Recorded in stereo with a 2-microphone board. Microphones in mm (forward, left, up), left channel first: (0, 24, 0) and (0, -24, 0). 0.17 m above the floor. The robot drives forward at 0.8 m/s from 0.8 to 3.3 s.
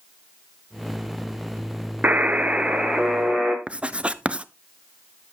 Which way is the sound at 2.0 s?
40° right (ahead or behind).